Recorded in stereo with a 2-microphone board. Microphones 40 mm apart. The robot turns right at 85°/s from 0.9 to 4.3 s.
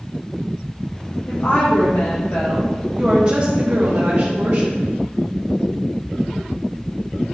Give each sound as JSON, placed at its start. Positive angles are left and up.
{"t": 1.3, "sound": "a woman speaking", "azimuth_deg": 40, "distance_m": 1.1}